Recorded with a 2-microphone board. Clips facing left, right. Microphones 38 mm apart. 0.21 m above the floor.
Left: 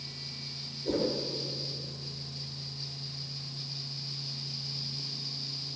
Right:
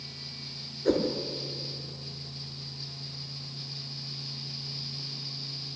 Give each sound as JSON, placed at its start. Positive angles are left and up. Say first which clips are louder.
{"t": 0.8, "sound": "a whoosh", "louder": "right 4 dB", "side_deg": -55, "distance_m": 6.0}